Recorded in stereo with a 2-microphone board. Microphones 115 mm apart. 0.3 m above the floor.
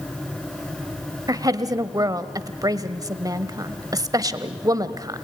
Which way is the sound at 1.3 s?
35° right (ahead or behind).